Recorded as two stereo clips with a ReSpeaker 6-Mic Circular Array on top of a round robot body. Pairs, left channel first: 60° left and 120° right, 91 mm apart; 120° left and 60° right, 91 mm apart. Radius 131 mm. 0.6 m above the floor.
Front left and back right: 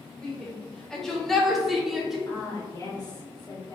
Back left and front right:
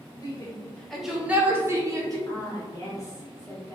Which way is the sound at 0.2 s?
125° left.